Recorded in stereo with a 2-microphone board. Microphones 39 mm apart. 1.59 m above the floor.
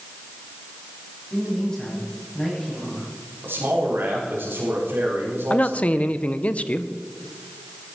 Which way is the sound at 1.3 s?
20° left (ahead or behind).